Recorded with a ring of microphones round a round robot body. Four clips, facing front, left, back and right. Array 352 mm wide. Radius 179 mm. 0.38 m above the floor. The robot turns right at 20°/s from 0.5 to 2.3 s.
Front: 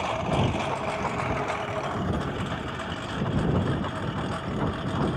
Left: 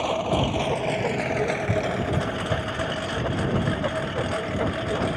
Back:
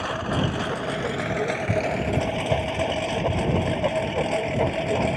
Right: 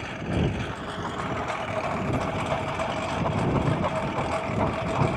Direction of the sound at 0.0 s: 115° left.